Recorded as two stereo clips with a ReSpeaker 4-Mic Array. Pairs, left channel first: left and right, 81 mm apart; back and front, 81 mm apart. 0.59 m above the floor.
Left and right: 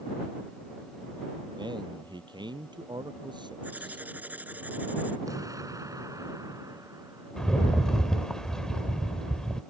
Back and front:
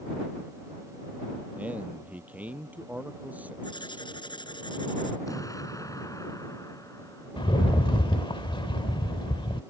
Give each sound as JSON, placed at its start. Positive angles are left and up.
{"t": 1.6, "sound": "a man speaking", "azimuth_deg": -70}
{"t": 3.6, "sound": "writing", "azimuth_deg": -160}
{"t": 5.3, "sound": "an explosion", "azimuth_deg": -135}
{"t": 7.4, "sound": "a rattle", "azimuth_deg": 175}